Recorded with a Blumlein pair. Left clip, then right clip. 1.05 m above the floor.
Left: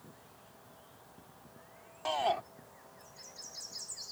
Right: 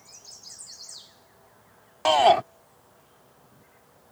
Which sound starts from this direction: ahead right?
A shout, at 2.0 s.